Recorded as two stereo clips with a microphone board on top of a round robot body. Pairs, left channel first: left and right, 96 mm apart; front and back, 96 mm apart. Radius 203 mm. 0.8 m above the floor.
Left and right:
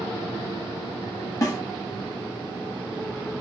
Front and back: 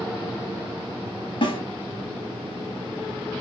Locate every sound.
1.4 s a snare drum: 35° left, 1.4 m